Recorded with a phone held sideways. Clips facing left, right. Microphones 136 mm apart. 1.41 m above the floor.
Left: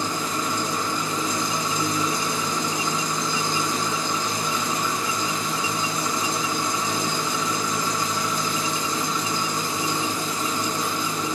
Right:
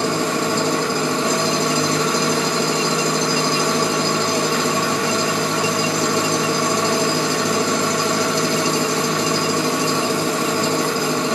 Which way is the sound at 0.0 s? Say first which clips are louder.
Right 8 dB; 70° right (ahead or behind).